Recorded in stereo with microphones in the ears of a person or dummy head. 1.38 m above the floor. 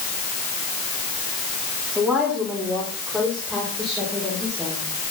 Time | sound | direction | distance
1.9 | a woman speaking | 10° right (ahead or behind) | 4 m